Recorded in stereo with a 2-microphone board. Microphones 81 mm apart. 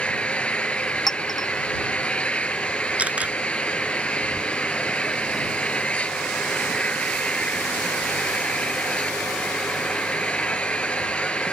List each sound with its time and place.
0.0 s an engine running: 15° left (ahead or behind)
1.1 s a clink: 60° left (ahead or behind)
3.0 s a camera shutter: 15° right (ahead or behind)